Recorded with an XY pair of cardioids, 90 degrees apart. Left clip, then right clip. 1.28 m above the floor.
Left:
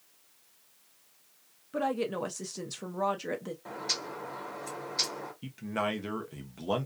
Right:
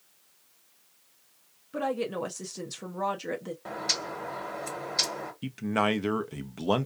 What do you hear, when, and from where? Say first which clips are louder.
1.7 s a woman speaking: right 1 dB; straight ahead, 0.6 m
3.6 s a bird: right 4 dB; 50° right, 1.3 m
5.4 s a man speaking: right 6 dB; 50° right, 0.6 m